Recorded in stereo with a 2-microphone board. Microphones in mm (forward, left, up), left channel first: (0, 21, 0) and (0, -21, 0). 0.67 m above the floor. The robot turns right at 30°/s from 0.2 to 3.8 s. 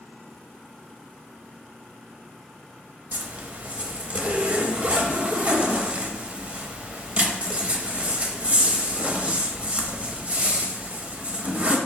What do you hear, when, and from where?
3.1 s a zipper: 45° right (ahead or behind), 0.6 m; by 11.8 s 30° right (ahead or behind), 0.6 m